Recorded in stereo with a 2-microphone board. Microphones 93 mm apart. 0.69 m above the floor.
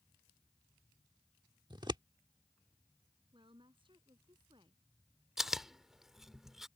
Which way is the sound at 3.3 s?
70° right (ahead or behind).